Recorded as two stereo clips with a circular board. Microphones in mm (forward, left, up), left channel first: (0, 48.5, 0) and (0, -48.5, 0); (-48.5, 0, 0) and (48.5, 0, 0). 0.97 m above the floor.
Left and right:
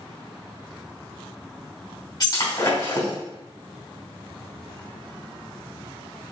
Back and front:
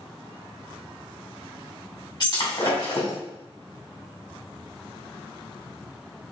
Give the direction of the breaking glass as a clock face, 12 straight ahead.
7 o'clock.